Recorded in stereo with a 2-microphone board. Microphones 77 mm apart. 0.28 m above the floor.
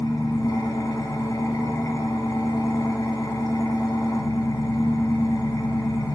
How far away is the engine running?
About 1.2 m.